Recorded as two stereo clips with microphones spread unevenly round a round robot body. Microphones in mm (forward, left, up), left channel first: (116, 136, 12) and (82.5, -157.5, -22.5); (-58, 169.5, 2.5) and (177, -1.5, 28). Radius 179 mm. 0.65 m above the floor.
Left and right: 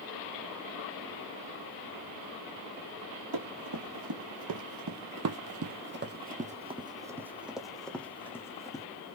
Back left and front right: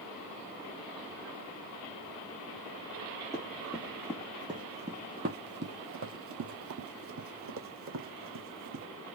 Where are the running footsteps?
125° right, 1.5 m; by 8.8 s 5° left, 1.8 m.